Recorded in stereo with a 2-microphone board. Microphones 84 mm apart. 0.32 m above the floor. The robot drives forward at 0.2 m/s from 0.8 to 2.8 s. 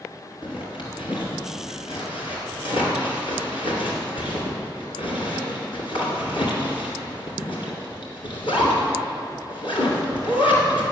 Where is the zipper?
75° left (ahead or behind), 2 m; by 10.8 s 80° left, 2 m.